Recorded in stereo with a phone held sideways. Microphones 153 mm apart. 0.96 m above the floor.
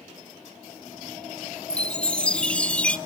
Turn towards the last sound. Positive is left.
turn(degrees=10)  # may be behind; listen again after turning